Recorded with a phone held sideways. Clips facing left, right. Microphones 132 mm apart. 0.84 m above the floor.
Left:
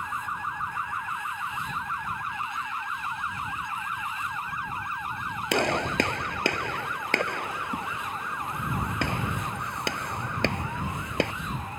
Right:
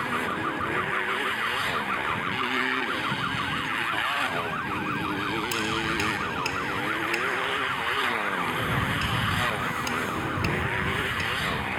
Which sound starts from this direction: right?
A motorcycle, at 0.0 s.